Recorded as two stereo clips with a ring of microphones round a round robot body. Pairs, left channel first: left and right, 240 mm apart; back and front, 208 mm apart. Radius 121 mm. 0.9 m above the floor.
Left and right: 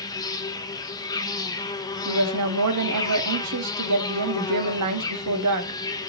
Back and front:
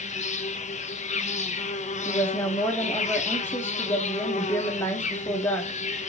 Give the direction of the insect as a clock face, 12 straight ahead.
7 o'clock.